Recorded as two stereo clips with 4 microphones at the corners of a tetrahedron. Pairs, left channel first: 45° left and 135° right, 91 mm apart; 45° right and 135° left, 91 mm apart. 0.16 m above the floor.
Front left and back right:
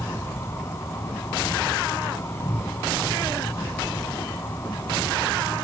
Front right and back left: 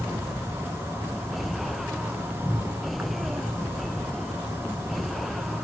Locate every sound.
0.0 s an insect: 90° left, 1.0 m